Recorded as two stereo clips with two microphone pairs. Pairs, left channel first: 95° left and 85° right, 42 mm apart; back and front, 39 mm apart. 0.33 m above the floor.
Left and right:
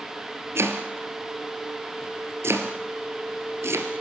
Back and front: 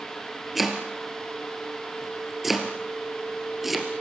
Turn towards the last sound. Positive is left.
turn(degrees=-85)